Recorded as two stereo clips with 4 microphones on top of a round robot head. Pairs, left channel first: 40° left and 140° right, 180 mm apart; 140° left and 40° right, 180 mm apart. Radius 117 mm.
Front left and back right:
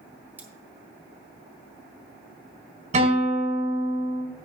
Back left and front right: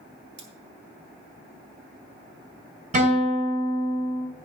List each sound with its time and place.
0.4 s cutlery clinking: 60° right, 2 m
2.9 s a guitar: 90° right, 4 m